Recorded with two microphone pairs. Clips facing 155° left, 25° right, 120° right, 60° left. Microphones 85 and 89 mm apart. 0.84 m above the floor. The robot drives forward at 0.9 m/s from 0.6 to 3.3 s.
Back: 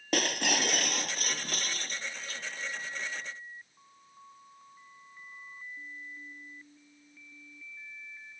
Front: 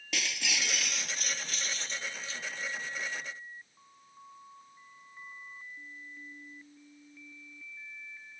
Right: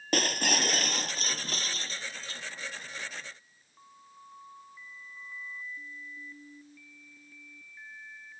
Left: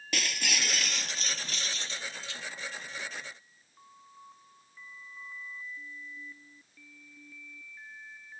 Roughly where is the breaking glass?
Behind.